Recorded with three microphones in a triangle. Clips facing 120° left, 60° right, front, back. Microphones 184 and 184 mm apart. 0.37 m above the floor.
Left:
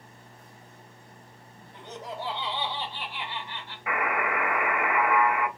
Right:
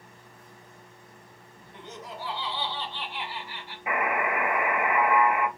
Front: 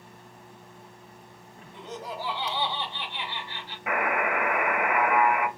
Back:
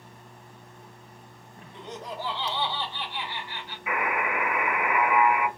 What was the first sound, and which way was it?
Laughter, 85° left.